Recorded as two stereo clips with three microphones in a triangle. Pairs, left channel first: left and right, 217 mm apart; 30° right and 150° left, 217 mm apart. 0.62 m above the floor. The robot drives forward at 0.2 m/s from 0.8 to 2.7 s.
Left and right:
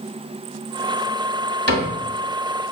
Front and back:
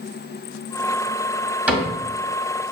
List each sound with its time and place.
1.7 s a cupboard door: 125° right, 1.5 m